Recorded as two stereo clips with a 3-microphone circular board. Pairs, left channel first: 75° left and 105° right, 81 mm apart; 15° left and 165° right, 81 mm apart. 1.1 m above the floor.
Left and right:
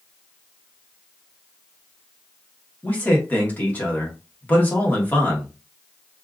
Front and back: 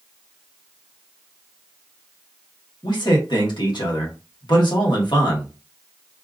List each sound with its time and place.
2.8 s a man speaking: 10° left, 1.3 m